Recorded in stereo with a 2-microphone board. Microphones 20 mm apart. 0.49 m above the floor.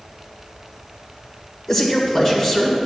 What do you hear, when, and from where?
1.7 s a man speaking: 15° left (ahead or behind), 1.6 m